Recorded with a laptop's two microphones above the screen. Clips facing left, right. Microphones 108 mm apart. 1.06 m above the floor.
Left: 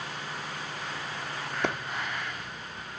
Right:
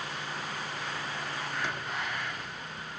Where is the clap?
65° left (ahead or behind), 1.8 m.